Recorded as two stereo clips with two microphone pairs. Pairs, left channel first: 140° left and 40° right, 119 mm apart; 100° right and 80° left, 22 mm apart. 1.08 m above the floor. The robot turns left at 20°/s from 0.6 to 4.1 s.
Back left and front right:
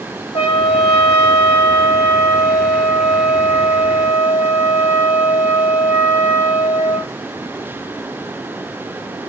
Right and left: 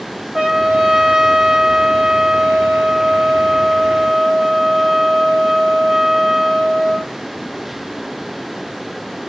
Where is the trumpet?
105° left, 1.5 m; by 7.1 s 35° left, 1.5 m.